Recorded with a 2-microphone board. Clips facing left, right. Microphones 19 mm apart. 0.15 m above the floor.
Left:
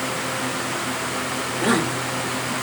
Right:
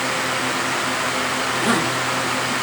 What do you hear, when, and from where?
1.6 s a woman speaking: centre (ahead or behind), 3 m